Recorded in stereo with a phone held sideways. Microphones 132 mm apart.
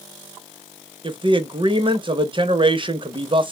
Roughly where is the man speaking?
Right.